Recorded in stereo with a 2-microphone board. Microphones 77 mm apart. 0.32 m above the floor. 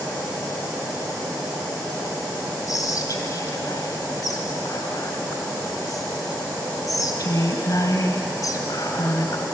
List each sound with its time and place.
2.7 s whispering: 50° left (ahead or behind), 1.9 m